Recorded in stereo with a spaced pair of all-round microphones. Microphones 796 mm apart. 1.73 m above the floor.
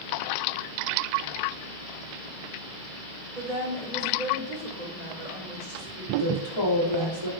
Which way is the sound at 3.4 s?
60° right (ahead or behind).